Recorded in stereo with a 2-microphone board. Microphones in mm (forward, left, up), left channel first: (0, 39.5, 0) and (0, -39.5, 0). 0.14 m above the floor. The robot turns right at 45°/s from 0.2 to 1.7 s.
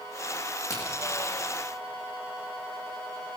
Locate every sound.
0.7 s a crack: 45° left (ahead or behind), 7 m; by 0.9 s 50° left (ahead or behind), 7 m